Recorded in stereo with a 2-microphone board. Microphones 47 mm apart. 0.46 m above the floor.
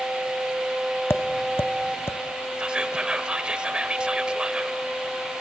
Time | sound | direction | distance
1.1 | tapping | 85° left | 0.8 m
2.6 | whispering | 20° right (ahead or behind) | 1.6 m